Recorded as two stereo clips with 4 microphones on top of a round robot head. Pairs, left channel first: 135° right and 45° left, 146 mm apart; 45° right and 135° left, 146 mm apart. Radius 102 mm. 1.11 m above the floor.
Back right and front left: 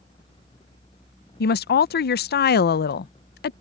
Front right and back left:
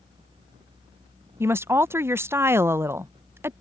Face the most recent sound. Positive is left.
turn(degrees=-150)